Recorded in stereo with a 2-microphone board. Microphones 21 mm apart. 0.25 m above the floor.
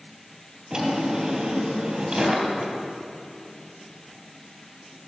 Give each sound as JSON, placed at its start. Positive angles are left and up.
{"t": 0.7, "sound": "a drawer", "side_deg": -35, "distance_m": 3.0}